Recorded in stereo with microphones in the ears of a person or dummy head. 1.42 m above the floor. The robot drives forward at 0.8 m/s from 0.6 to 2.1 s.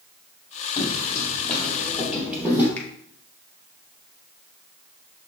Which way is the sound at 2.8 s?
10° left (ahead or behind).